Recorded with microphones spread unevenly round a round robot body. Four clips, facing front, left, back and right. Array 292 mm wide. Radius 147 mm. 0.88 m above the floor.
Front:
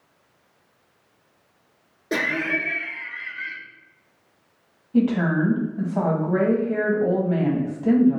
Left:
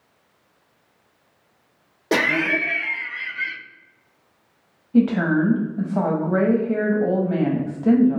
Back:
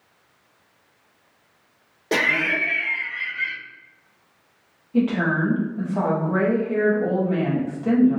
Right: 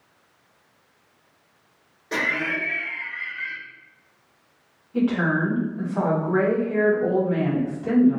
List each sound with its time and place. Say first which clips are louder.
2.1 s laughter: left 6 dB, back 2 dB; 105° left, 0.5 m
4.9 s a woman speaking: left 4 dB, front 1 dB; 80° left, 1.3 m